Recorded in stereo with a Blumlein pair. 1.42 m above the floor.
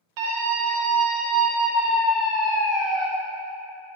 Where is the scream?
45° right, 1.6 m; by 3.1 s 5° left, 1.8 m.